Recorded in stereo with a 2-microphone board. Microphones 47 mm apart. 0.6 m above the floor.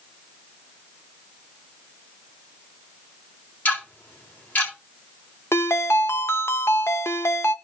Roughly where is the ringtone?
Left.